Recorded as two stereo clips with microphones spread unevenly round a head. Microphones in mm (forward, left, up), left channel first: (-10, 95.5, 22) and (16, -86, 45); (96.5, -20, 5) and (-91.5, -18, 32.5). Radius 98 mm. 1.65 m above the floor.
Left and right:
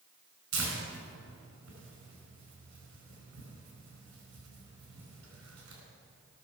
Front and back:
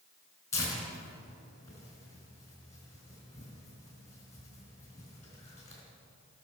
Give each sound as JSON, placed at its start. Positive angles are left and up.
{"t": 0.5, "sound": "tearing paper", "azimuth_deg": -80, "distance_m": 4.0}